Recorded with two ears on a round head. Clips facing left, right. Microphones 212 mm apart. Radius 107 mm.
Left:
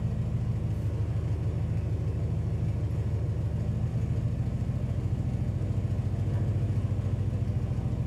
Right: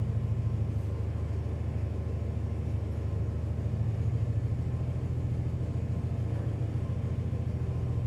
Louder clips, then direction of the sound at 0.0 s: Left 2 dB; 50° left (ahead or behind).